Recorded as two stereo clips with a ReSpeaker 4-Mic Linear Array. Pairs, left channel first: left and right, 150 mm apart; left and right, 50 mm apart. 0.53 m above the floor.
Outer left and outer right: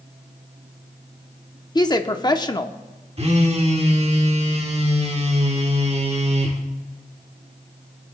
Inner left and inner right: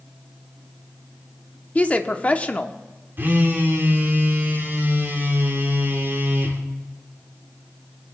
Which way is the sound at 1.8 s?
30° left (ahead or behind).